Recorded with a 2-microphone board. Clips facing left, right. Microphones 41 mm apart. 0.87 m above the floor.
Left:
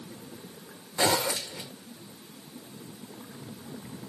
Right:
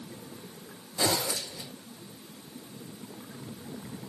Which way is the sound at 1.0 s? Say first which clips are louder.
Left 3 dB; 55° left (ahead or behind).